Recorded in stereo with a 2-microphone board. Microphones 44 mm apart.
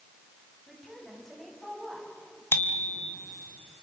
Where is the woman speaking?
10° left (ahead or behind), 9 m.